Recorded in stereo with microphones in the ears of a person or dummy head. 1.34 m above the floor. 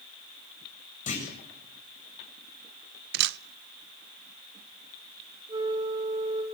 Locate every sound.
1.1 s a clunk: 45° left (ahead or behind), 8 m
3.1 s a camera shutter: 60° right (ahead or behind), 0.7 m
5.5 s a flute: 20° right (ahead or behind), 4 m